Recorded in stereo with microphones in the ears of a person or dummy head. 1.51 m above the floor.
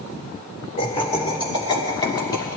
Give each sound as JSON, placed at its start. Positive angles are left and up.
{"t": 0.8, "sound": "laughter", "side_deg": 35, "distance_m": 3.5}